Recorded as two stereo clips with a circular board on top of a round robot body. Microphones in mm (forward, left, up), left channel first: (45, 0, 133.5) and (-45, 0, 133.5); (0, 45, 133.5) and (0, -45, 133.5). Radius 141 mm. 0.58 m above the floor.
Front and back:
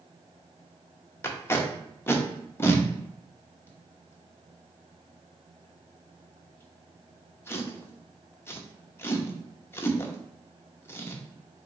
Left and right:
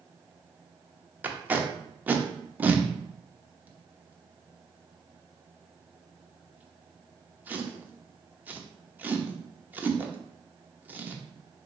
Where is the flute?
I don't hear a flute.